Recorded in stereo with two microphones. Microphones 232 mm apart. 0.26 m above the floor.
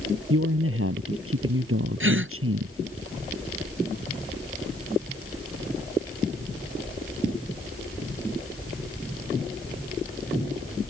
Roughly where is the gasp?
Right.